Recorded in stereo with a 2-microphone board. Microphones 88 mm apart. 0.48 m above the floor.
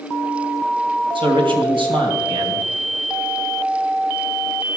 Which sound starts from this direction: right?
A man speaking, at 1.1 s.